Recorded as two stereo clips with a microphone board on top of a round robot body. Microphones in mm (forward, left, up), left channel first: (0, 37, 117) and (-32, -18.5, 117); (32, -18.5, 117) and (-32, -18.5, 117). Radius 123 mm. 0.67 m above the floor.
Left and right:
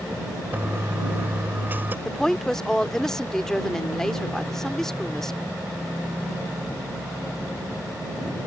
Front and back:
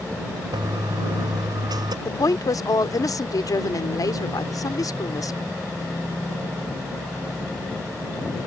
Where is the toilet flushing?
175° left.